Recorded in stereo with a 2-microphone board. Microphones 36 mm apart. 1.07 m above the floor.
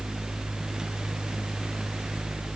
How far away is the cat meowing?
I don't hear a cat meowing.